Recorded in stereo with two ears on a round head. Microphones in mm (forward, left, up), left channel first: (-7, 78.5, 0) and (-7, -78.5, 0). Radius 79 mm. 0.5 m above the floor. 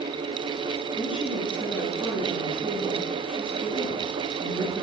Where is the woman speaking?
5° right (ahead or behind), 6 m.